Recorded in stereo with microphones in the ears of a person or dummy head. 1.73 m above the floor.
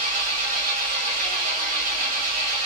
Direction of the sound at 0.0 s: 50° right (ahead or behind).